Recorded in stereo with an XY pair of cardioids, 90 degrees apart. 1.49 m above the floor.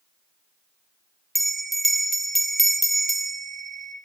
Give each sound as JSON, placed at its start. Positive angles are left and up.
{"t": 1.4, "sound": "a bell", "azimuth_deg": -5, "distance_m": 0.6}